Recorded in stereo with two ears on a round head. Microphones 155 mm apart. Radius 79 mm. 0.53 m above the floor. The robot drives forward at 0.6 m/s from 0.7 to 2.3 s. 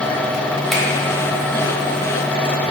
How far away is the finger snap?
About 1.1 m.